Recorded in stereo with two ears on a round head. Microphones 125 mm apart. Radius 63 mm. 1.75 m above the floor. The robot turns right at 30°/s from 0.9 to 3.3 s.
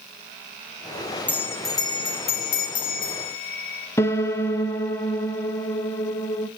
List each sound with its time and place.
1.3 s a bell: 10° left, 0.9 m; by 3.9 s 75° left, 0.9 m
4.0 s a piano: 20° left (ahead or behind), 0.5 m